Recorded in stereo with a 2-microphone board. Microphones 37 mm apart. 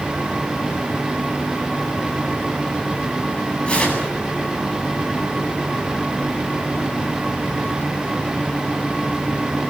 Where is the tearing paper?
30° left (ahead or behind), 8.5 m.